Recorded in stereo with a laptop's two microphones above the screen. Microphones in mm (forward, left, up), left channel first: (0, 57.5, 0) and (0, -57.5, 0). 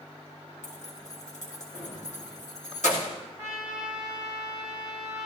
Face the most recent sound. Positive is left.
turn(degrees=75)  # may be behind; listen again after turning